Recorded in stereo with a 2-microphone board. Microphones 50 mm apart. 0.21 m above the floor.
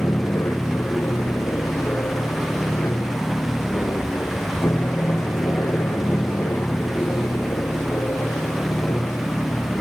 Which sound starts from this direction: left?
An aircraft, at 0.0 s.